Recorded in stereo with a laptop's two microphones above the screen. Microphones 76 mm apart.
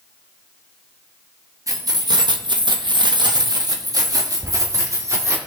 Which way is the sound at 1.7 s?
45° right (ahead or behind).